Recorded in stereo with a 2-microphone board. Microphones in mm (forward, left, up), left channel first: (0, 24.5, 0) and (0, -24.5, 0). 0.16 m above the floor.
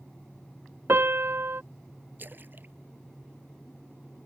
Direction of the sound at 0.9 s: 50° right (ahead or behind).